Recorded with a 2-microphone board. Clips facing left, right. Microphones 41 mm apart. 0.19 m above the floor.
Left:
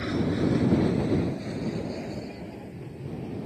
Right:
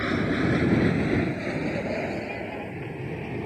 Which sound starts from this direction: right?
An aircraft, at 0.0 s.